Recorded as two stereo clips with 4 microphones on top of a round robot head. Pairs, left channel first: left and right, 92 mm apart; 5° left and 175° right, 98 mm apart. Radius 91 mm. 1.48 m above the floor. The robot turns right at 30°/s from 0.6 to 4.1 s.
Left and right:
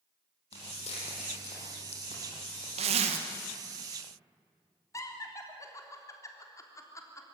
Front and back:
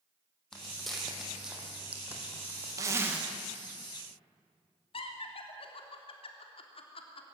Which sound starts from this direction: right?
A zipper, at 2.8 s.